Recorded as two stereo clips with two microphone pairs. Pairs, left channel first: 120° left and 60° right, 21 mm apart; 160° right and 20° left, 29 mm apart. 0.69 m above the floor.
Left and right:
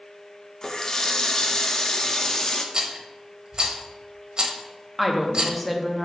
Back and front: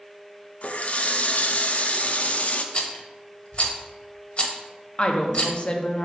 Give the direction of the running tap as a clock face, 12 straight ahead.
6 o'clock.